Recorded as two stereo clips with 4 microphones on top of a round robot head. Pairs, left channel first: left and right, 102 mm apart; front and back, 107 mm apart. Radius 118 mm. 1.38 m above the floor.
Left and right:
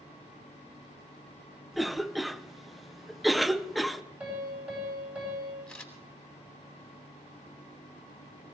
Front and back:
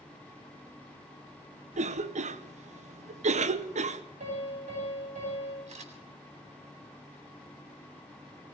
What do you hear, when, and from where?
1.7 s a cough: straight behind, 0.8 m
4.2 s a piano: 165° right, 8 m
5.7 s a camera shutter: 175° left, 3.5 m